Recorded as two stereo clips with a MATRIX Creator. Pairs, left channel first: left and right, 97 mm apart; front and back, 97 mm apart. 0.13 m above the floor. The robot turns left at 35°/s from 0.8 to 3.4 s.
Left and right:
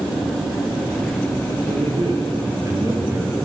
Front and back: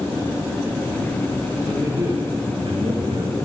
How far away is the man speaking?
About 9 m.